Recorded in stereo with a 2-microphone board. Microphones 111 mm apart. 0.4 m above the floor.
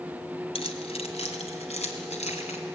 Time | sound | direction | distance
0.6 | keys jangling | 60° left (ahead or behind) | 1.8 m